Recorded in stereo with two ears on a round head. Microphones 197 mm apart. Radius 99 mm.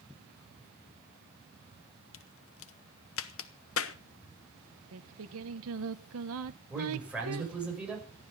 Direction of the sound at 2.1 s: 70° left (ahead or behind).